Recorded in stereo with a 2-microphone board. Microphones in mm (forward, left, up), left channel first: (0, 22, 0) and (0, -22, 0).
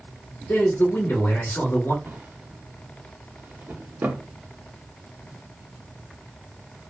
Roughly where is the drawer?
Right.